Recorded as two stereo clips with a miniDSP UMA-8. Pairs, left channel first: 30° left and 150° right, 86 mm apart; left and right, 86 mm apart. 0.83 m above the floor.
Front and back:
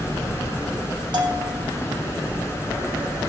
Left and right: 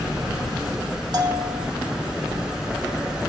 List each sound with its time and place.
1.1 s a bell: 125° right, 2 m